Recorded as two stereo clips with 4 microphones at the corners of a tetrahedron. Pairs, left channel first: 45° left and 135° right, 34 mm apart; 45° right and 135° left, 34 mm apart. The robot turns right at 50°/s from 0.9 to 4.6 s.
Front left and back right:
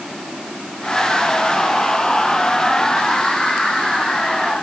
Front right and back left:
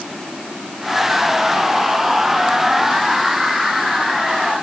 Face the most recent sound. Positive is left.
No sound to turn to.